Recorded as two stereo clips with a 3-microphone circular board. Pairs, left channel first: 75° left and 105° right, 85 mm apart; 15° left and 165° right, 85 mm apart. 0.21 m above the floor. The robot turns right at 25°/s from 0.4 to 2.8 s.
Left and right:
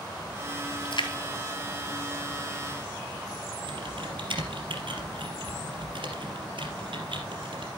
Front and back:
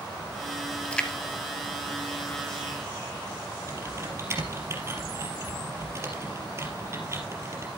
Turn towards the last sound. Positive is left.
turn(degrees=-110)